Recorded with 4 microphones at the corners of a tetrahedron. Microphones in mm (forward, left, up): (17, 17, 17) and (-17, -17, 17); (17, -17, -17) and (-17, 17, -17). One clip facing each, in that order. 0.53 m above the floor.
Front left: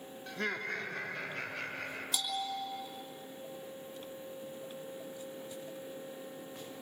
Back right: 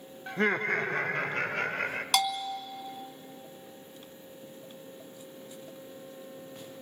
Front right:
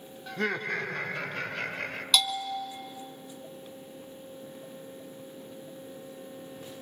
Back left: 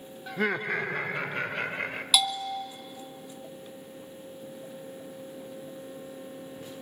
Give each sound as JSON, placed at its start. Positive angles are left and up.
{"t": 0.3, "sound": "laughter", "azimuth_deg": -155, "distance_m": 0.7}
{"t": 2.1, "sound": "a bell", "azimuth_deg": -145, "distance_m": 1.3}